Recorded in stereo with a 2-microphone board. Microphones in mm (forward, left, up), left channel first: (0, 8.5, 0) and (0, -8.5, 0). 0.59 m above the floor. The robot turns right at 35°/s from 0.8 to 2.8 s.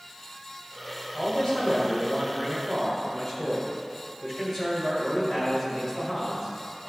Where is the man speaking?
90° left, 3 m; by 6.9 s 150° left, 3 m.